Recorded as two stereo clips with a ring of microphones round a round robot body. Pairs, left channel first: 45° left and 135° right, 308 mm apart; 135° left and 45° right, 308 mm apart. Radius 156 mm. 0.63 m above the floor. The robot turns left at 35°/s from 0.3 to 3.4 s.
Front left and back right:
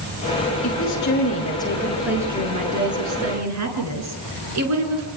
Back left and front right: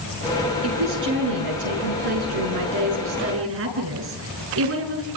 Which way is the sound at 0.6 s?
Straight ahead.